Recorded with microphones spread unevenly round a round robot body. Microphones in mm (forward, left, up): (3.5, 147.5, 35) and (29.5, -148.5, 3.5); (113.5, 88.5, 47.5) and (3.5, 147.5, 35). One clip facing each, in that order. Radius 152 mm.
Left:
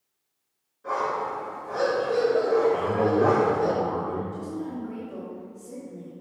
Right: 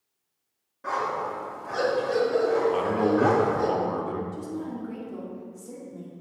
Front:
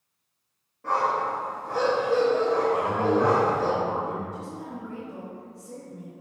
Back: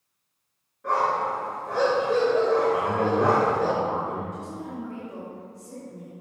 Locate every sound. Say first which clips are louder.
0.8 s a dog barking: left 2 dB, back 1 dB; 105° right, 2.5 m
2.7 s a man speaking: even, even; 125° right, 0.9 m
4.3 s a woman speaking: left 1 dB, back 2 dB; 140° right, 1.9 m